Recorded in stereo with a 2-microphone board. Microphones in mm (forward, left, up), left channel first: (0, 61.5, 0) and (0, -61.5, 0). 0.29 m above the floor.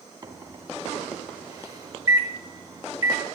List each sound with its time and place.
0.2 s a microwave: 30° right (ahead or behind), 2.5 m